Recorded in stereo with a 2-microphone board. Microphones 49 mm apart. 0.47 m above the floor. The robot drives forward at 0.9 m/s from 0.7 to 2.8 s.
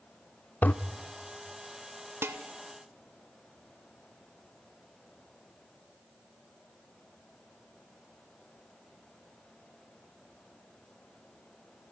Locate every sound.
0.6 s a toilet flushing: 35° left (ahead or behind), 0.7 m
2.2 s dishes clattering: 50° right (ahead or behind), 1.0 m